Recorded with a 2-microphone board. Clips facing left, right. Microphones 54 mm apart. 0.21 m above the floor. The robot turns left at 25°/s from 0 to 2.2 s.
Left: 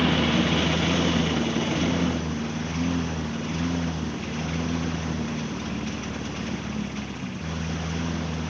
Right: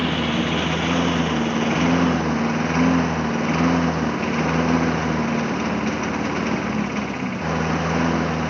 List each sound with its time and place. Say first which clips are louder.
0.0 s a lawn mower: even; straight ahead; by 8.5 s 55° right